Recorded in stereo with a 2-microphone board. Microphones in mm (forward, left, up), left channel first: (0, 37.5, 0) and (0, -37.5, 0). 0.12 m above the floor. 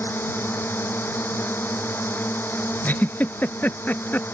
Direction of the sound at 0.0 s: 30° left (ahead or behind).